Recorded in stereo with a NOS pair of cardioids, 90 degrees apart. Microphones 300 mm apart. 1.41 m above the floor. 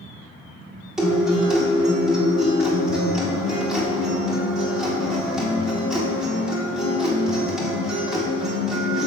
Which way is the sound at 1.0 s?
Straight ahead.